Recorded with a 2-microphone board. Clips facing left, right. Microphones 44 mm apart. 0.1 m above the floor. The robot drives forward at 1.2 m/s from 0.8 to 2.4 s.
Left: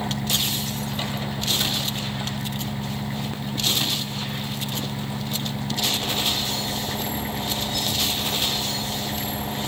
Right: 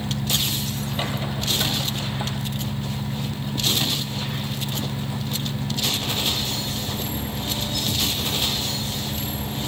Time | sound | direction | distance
0.0 | an engine running | 35° left (ahead or behind) | ?